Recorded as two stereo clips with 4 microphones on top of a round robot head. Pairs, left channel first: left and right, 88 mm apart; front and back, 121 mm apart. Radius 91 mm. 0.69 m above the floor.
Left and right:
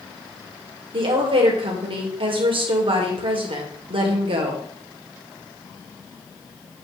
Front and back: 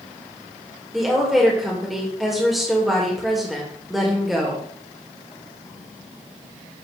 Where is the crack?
I don't hear a crack.